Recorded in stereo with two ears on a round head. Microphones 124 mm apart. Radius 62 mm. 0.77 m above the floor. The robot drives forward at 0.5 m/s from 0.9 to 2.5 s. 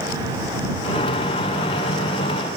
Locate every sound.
Only background noise.